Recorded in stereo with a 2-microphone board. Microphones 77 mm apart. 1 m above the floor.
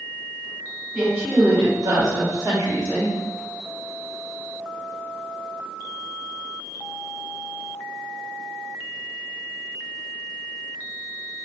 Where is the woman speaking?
15° right (ahead or behind), 1.0 m; by 3.1 s 25° right (ahead or behind), 1.9 m.